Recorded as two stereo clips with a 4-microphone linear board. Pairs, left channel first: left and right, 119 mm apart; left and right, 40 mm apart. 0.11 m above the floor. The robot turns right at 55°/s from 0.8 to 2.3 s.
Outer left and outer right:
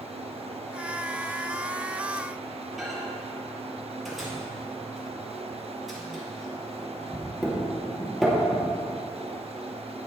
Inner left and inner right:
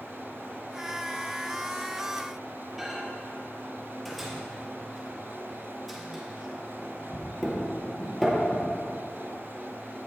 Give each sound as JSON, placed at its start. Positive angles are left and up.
{"t": 2.8, "sound": "a microwave", "side_deg": 0, "distance_m": 2.5}